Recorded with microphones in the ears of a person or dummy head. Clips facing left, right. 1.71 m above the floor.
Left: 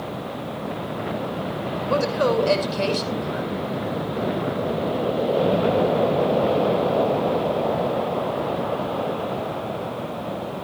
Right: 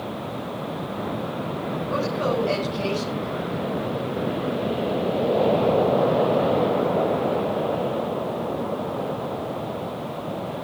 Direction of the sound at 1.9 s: 75° left (ahead or behind).